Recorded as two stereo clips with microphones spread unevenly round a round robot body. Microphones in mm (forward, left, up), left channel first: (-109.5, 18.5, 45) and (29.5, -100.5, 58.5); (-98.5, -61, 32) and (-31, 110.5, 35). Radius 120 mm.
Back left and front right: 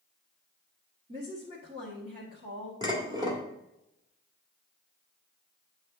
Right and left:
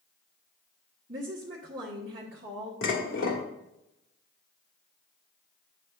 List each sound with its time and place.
1.1 s a woman speaking: 20° left, 1.5 m
2.8 s dishes clattering: 110° right, 1.8 m